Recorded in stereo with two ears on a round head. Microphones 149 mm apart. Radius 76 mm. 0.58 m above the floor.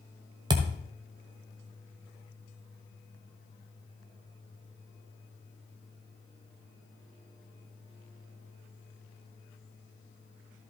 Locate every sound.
0.5 s a thud: 25° right (ahead or behind), 1.2 m